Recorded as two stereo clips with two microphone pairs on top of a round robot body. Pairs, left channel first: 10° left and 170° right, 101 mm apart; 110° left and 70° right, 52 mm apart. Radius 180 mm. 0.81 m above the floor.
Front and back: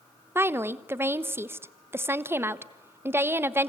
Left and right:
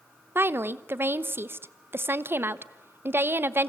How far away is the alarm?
No alarm in this recording.